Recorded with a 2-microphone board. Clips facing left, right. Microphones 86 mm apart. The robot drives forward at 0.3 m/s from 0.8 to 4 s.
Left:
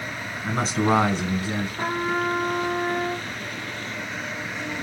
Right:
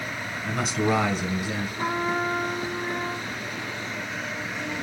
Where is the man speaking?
30° left (ahead or behind), 2.0 m.